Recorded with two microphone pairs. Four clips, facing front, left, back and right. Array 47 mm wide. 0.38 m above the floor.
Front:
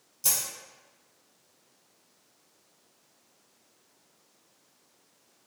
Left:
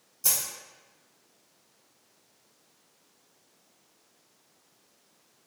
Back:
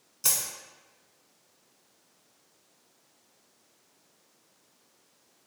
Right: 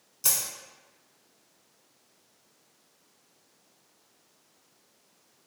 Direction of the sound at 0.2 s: 160° right.